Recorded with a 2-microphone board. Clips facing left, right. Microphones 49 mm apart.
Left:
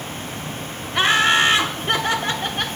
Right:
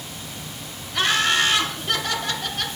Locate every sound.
0.9 s laughter: 25° left (ahead or behind), 0.9 m